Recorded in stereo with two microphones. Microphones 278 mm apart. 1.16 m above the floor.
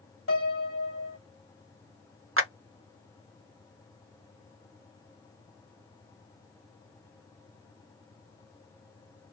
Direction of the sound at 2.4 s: 55° right (ahead or behind).